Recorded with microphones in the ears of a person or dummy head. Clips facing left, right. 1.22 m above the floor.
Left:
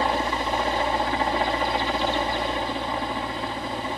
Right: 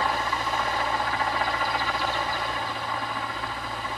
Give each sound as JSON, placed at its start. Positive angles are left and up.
{"t": 0.0, "sound": "a helicopter", "side_deg": 25}